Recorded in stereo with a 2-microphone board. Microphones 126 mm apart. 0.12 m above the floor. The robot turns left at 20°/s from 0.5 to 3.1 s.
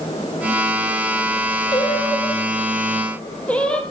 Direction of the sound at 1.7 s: 35° left (ahead or behind).